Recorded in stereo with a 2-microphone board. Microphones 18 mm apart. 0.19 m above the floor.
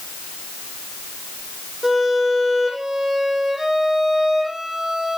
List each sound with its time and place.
1.8 s a violin: 20° right (ahead or behind), 8.5 m